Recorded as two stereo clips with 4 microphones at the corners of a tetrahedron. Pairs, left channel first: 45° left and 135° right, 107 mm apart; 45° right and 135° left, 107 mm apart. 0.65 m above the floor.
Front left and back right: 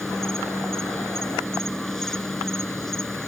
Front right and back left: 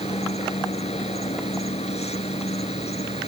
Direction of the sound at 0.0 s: 40° right.